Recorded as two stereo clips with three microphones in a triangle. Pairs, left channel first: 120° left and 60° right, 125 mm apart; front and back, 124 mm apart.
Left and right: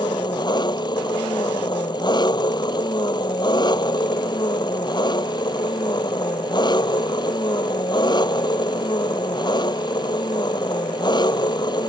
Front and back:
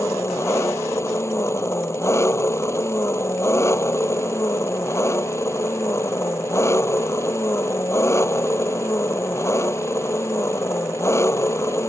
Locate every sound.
0.0 s an engine running: 65° left